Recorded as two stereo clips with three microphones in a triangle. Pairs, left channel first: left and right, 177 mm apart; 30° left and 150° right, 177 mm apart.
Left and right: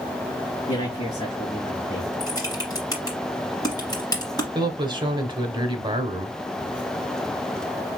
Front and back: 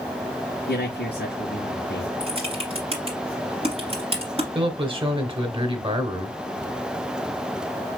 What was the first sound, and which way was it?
A man speaking, 35° left.